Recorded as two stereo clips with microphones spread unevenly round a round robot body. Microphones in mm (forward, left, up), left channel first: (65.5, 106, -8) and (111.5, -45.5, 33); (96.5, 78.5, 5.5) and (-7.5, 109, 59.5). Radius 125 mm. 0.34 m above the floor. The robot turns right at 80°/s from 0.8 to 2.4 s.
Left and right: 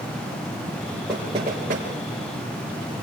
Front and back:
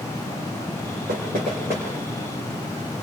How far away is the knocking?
About 4.5 m.